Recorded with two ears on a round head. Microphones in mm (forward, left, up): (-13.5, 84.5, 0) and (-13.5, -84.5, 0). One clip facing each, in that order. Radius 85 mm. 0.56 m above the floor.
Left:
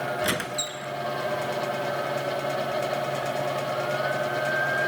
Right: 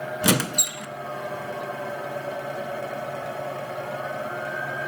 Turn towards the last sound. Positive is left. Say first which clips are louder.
# right 5 dB
turn(degrees=-55)  # may be behind; listen again after turning